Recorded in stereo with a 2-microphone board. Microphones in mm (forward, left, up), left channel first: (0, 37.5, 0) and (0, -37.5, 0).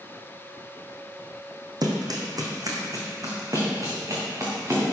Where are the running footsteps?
55° right (ahead or behind), 2 m; by 4.8 s 40° right (ahead or behind), 4.5 m.